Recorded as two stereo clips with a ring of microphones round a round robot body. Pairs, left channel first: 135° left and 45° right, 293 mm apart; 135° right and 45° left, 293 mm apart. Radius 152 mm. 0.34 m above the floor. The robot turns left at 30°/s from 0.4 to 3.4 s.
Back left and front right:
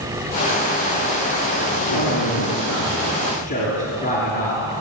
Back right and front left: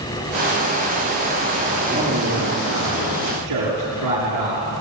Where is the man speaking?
120° left, 6.5 m; by 4.6 s 75° left, 6.5 m.